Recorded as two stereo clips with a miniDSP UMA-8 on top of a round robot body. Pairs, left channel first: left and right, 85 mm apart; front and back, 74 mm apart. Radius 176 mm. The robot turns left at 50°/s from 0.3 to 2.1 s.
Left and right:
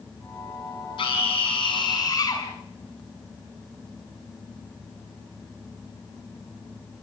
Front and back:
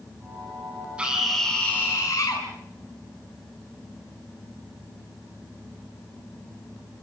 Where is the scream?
105° left, 6 m; by 2.5 s 45° left, 6 m.